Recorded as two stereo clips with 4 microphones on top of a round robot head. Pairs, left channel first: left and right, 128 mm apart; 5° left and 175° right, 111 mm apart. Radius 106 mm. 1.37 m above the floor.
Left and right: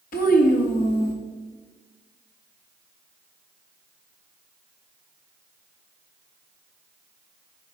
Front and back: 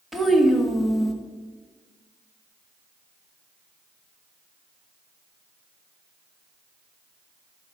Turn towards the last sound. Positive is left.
turn(degrees=95)